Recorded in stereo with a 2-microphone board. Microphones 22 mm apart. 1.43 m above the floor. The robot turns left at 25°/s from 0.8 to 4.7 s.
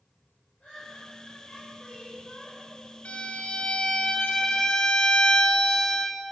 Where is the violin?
70° left, 1.3 m; by 6.2 s 30° left, 1.3 m.